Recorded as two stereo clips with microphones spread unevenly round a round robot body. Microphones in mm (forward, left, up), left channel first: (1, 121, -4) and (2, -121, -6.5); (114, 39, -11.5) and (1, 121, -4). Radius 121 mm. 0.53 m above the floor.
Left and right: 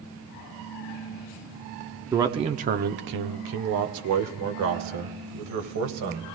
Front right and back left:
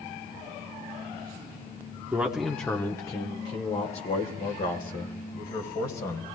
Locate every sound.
2.1 s a man speaking: 150° right, 0.7 m; by 6.3 s 80° right, 2.5 m